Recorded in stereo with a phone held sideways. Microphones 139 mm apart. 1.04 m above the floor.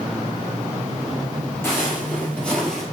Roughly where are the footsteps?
Centre.